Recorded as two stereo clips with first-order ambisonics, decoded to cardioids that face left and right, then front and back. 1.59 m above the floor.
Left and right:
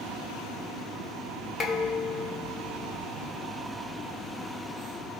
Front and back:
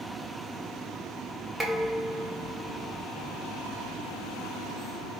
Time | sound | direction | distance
1.6 | dishes clattering | 105° left | 0.9 m